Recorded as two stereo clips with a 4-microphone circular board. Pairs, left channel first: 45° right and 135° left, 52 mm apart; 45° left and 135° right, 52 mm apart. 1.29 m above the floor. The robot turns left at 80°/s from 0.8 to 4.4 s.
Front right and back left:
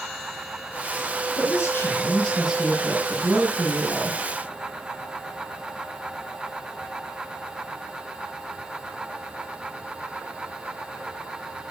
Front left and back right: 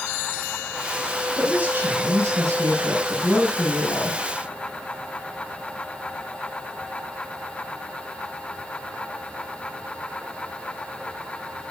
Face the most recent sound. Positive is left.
turn(degrees=60)